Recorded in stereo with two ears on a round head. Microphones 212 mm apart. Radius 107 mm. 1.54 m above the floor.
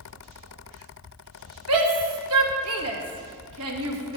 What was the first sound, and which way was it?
A shout, 65° right (ahead or behind).